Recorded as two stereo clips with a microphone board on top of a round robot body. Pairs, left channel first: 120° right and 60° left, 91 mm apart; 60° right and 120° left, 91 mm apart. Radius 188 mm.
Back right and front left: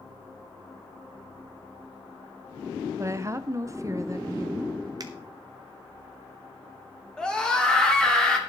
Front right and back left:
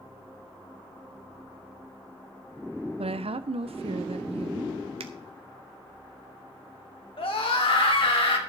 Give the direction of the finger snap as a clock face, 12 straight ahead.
8 o'clock.